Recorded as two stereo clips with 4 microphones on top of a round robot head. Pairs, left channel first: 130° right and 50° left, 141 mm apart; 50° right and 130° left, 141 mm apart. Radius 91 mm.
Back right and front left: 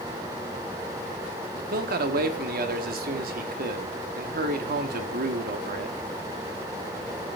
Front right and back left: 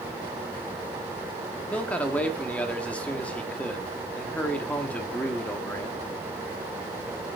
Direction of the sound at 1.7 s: 35° left.